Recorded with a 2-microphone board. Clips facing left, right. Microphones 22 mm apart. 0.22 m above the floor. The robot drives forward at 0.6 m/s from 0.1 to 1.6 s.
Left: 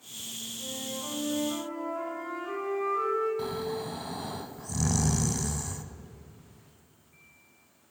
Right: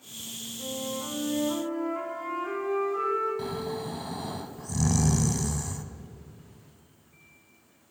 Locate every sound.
0.6 s a flute: 35° right (ahead or behind), 6.5 m
3.4 s snoring: 5° right (ahead or behind), 0.7 m